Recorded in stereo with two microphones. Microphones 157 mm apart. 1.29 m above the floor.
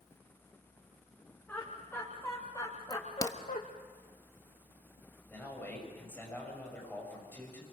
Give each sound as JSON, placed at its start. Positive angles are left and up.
{"t": 1.5, "sound": "laughter", "side_deg": 10, "distance_m": 3.5}
{"t": 2.9, "sound": "a crack", "side_deg": 20, "distance_m": 1.0}
{"t": 5.3, "sound": "a man speaking", "side_deg": 15, "distance_m": 7.0}